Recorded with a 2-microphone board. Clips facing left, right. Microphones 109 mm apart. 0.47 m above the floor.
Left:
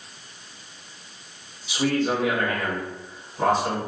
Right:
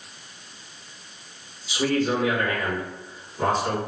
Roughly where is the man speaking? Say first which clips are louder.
Even; left.